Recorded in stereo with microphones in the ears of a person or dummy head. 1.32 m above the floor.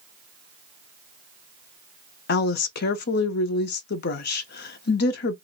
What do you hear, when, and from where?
2.3 s a woman speaking: 60° left (ahead or behind), 0.6 m